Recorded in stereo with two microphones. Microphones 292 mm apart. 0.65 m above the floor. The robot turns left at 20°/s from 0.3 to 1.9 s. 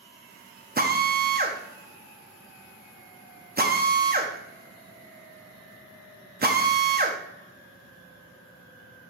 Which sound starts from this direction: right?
A drill, at 0.8 s.